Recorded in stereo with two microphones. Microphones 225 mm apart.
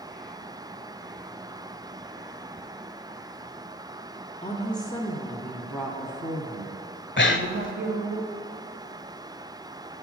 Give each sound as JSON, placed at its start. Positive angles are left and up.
{"t": 4.4, "sound": "a woman speaking", "side_deg": 25, "distance_m": 1.5}
{"t": 7.2, "sound": "breathing", "side_deg": 55, "distance_m": 0.6}